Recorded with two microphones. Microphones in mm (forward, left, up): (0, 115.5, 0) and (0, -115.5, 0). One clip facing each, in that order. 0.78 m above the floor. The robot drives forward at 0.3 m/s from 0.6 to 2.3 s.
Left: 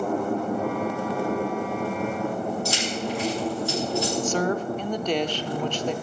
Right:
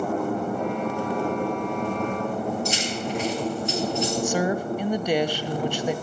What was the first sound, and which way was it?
Keys jangling, 20° right (ahead or behind).